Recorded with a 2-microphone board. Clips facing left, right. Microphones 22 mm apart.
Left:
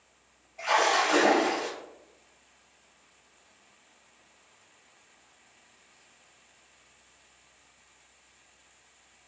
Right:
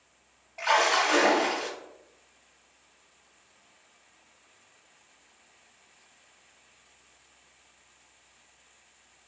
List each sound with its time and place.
0.6 s a splash: 60° right (ahead or behind), 1.1 m